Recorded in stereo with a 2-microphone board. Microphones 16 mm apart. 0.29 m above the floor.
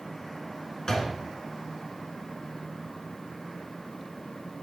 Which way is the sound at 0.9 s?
45° left (ahead or behind).